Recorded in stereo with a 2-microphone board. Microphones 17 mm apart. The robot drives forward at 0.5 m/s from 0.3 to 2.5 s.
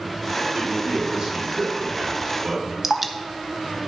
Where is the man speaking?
45° right (ahead or behind), 2.5 m; by 2.7 s 65° right (ahead or behind), 2 m.